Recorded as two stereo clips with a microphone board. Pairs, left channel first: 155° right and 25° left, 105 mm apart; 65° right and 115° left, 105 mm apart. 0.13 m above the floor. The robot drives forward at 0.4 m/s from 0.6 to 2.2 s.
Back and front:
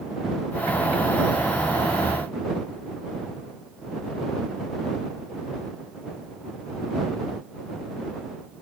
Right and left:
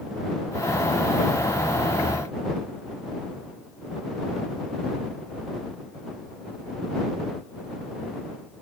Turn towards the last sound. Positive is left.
No sound to turn to.